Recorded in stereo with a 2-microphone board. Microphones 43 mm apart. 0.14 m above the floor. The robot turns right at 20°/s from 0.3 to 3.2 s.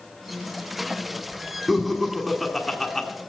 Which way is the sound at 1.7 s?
5° right (ahead or behind).